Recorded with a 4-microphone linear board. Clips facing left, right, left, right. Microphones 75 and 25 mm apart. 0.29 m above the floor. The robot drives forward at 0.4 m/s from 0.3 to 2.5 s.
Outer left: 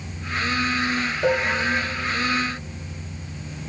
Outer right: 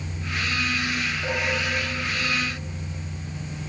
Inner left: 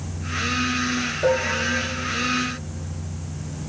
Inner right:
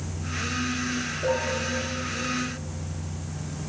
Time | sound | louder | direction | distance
1.2 | dishes clattering | outer left 8 dB, inner left 5 dB | 70° left (ahead or behind) | 3 m